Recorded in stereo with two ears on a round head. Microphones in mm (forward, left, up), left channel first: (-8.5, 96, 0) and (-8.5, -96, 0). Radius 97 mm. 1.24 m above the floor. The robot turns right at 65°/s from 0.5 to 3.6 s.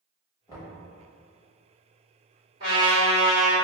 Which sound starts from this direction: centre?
Knocking, at 0.5 s.